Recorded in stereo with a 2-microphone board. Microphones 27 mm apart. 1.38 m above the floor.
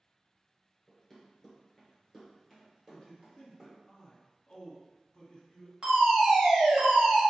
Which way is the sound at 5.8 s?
40° right (ahead or behind).